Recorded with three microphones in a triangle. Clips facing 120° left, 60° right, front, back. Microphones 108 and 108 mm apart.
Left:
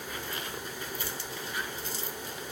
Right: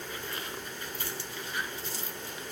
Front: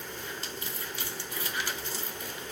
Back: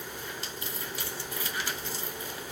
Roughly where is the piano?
I don't hear a piano.